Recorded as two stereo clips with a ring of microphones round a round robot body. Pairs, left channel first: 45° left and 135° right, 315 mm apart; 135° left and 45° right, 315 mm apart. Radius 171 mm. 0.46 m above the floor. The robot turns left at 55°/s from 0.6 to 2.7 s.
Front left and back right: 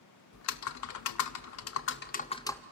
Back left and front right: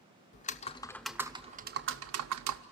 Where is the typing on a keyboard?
70° left, 0.6 m; by 2.6 s 40° right, 0.6 m.